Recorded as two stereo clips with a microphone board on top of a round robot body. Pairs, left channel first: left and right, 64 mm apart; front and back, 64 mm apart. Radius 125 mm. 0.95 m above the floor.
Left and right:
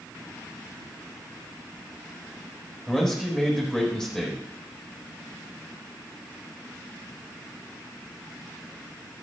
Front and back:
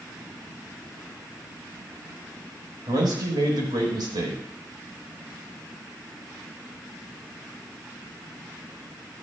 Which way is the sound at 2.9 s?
175° left.